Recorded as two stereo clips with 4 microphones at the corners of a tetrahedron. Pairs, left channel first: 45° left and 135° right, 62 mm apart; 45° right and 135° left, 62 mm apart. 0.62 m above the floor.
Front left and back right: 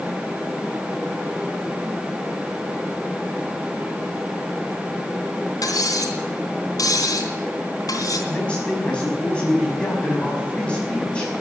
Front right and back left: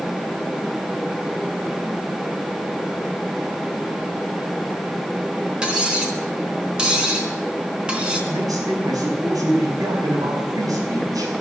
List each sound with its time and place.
5.6 s cutlery clinking: 60° left, 3.5 m
8.3 s a man speaking: 120° left, 5.5 m